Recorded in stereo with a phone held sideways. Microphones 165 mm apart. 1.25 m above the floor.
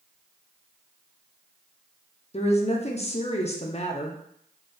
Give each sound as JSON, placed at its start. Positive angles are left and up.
{"t": 2.3, "sound": "a woman speaking", "side_deg": 40, "distance_m": 0.6}